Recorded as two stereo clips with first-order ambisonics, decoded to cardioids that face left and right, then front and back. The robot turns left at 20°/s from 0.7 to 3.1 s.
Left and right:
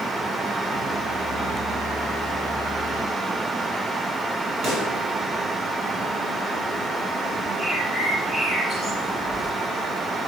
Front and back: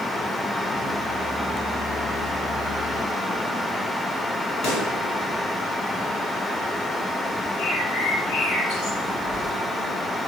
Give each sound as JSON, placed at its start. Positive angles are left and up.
{"t": 4.6, "sound": "a pop", "azimuth_deg": -35, "distance_m": 6.0}
{"t": 7.6, "sound": "a bird", "azimuth_deg": -15, "distance_m": 7.5}
{"t": 9.2, "sound": "keys jangling", "azimuth_deg": -35, "distance_m": 4.5}